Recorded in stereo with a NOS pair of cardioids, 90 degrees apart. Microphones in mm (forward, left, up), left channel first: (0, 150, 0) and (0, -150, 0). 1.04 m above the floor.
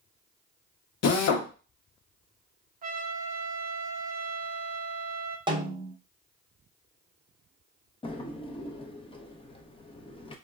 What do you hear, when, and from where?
1.0 s a drill: 55° left, 0.8 m
2.8 s a trumpet: 30° right, 0.6 m
5.5 s a snare drum: 15° right, 0.7 m
8.0 s a drawer: 20° left, 0.6 m